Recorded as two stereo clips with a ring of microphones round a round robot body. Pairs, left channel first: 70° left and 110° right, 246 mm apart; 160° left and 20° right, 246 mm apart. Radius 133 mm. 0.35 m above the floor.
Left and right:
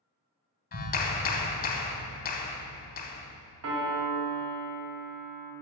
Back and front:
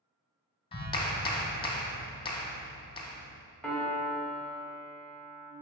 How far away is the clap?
About 1.1 m.